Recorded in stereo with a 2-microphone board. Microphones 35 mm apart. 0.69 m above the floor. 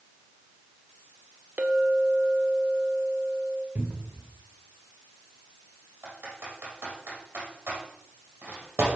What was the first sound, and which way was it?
A clink, 55° right (ahead or behind).